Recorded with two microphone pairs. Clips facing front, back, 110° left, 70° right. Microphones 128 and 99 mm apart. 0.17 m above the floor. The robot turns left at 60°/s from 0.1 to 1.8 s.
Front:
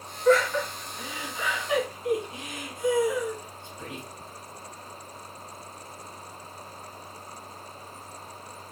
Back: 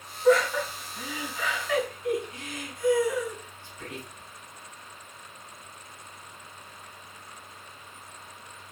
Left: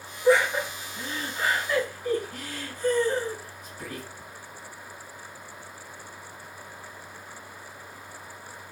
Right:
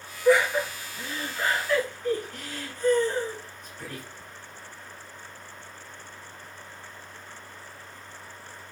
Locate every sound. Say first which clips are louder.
0.2 s laughter: even, even; 130° left, 1.7 m; by 4.0 s 40° left, 1.7 m